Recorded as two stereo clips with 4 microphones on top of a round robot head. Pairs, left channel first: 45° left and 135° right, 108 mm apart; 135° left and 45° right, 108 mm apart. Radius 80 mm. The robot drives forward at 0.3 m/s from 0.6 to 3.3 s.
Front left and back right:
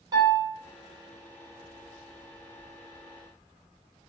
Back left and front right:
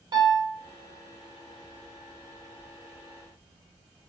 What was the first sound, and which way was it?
A piano, 90° right.